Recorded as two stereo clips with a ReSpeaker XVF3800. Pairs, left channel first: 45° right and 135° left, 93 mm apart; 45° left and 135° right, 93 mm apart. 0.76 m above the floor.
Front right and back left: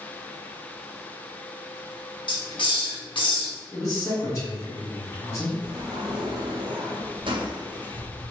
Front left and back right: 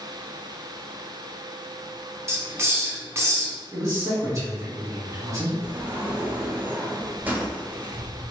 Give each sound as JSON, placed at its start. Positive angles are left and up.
{"t": 2.3, "sound": "a hiss", "azimuth_deg": -75, "distance_m": 0.6}
{"t": 3.7, "sound": "a man speaking", "azimuth_deg": -90, "distance_m": 1.7}
{"t": 5.6, "sound": "a sliding door", "azimuth_deg": 155, "distance_m": 0.6}